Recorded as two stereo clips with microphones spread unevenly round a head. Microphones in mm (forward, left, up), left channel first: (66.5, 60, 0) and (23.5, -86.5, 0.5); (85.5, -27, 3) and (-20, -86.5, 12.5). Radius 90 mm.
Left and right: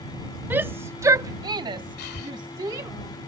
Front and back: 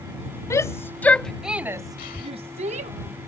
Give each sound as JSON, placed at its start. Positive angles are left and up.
{"t": 0.5, "sound": "a shout", "azimuth_deg": -30}
{"t": 2.0, "sound": "breathing", "azimuth_deg": 75}